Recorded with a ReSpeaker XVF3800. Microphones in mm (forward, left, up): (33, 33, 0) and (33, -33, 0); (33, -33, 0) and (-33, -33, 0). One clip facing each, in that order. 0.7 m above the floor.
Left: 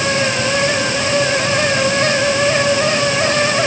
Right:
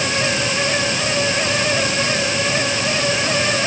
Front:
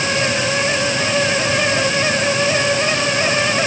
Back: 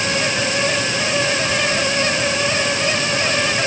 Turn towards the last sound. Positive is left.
No sound to turn to.